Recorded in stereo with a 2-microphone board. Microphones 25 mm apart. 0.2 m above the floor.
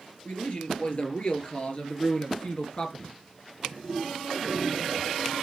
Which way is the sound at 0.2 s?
45° left (ahead or behind).